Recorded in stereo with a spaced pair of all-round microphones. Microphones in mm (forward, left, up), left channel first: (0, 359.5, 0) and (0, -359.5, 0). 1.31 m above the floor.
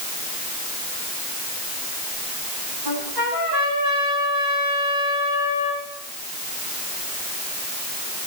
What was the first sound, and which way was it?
A trumpet, 85° right.